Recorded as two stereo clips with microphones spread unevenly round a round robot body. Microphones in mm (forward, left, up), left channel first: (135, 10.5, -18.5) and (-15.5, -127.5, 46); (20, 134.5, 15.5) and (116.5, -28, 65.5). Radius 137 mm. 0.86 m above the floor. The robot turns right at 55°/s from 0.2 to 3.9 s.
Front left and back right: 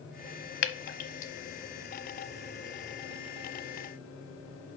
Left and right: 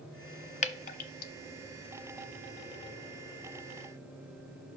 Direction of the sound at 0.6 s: 70° left.